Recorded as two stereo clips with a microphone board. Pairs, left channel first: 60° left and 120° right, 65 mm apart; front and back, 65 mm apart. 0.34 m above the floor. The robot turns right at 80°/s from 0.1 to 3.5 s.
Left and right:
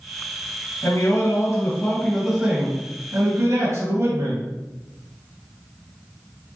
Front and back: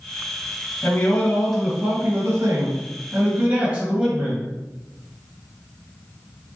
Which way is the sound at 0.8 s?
35° left.